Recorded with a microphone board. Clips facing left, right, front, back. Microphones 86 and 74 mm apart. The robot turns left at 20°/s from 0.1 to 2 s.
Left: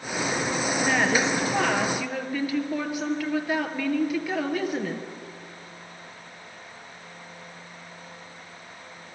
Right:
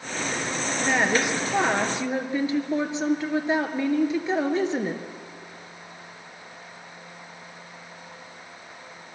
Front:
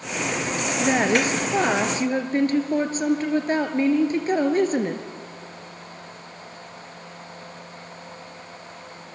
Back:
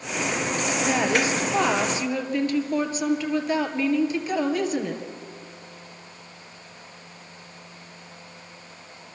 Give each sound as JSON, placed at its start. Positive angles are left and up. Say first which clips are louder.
{"t": 0.8, "sound": "a woman speaking", "louder": "right 1 dB, front 3 dB", "azimuth_deg": -10, "distance_m": 2.0}